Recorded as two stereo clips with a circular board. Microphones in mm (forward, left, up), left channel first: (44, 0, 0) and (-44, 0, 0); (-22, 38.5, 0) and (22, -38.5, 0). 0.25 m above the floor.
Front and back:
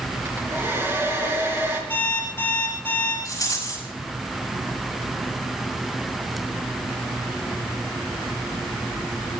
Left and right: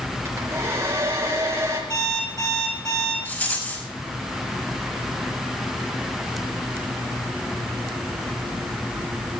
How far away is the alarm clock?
About 8 m.